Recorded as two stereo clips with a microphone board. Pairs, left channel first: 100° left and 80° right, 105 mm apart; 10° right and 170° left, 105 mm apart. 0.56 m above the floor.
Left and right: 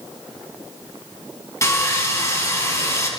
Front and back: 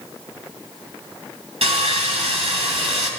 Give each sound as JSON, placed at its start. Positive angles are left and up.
{"t": 1.6, "sound": "sawing", "azimuth_deg": 160, "distance_m": 3.5}